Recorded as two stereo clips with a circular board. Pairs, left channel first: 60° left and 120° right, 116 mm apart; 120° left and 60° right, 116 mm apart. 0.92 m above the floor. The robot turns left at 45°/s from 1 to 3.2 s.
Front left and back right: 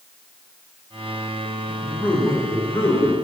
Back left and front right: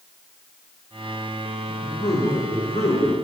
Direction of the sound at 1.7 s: 155° left.